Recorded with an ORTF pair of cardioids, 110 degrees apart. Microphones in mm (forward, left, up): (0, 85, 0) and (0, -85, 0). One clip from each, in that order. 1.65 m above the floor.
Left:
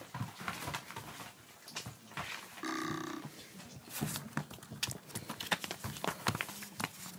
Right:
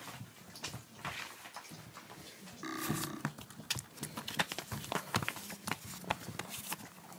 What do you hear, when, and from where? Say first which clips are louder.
2.6 s cutlery clinking: left 1 dB; 20° left